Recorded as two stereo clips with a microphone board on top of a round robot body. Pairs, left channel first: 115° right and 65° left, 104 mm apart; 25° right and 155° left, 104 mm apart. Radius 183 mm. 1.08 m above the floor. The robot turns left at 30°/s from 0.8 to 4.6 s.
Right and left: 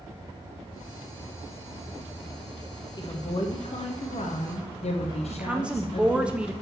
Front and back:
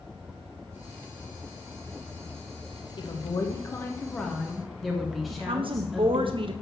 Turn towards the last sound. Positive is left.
turn(degrees=145)